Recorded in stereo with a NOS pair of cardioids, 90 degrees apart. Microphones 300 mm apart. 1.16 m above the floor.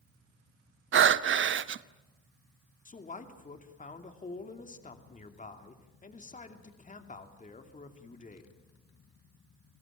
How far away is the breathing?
About 0.8 m.